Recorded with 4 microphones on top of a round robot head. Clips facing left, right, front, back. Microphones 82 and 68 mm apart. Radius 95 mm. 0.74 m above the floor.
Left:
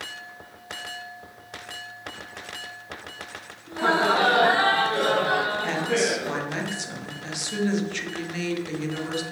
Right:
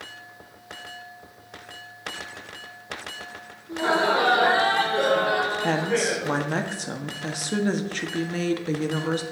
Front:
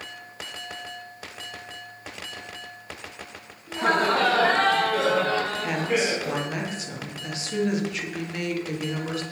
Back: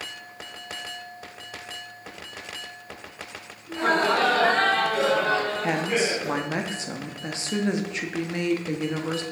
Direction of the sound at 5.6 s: 125° right.